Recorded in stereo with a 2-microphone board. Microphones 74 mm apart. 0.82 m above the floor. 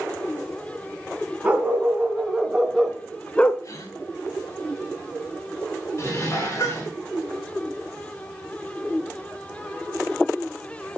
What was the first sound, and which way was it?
A dog barking, 20° right (ahead or behind).